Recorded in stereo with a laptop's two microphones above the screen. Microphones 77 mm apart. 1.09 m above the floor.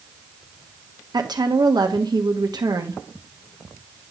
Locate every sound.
1.1 s a woman speaking: 60° right (ahead or behind), 1.1 m